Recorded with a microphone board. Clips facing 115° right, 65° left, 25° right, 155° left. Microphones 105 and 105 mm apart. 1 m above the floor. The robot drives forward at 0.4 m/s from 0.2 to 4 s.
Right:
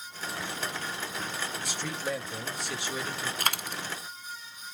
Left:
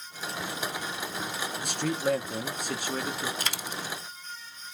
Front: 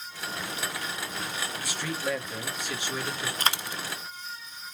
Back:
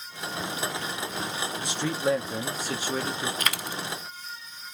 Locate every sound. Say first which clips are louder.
1.6 s a man speaking: left 9 dB, back 7 dB; 90° left, 1.6 m; by 3.3 s 115° left, 1.8 m
3.4 s a dropped coin: right 3 dB, front 1 dB; 75° right, 0.7 m; by 3.8 s 90° right, 0.7 m